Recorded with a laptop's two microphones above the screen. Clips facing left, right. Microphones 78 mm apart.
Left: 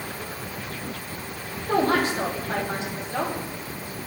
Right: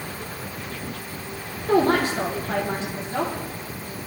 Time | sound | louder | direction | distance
1.7 | a woman speaking | right 3 dB | 65° right (ahead or behind) | 2.5 m